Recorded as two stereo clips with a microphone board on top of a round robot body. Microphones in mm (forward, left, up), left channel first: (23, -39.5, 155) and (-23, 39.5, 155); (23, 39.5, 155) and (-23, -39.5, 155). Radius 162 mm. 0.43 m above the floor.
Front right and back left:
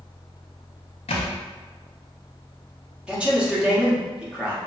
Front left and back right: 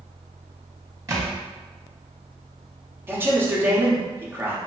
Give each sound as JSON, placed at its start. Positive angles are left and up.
{"t": 1.1, "sound": "a thud", "azimuth_deg": -60, "distance_m": 0.6}
{"t": 3.1, "sound": "a man speaking", "azimuth_deg": -165, "distance_m": 1.5}